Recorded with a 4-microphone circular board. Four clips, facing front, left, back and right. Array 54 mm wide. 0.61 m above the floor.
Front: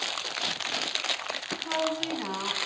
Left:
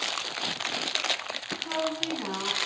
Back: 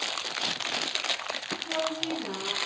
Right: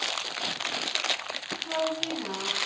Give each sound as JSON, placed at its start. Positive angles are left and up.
{"t": 1.6, "sound": "a woman speaking", "azimuth_deg": 20, "distance_m": 6.0}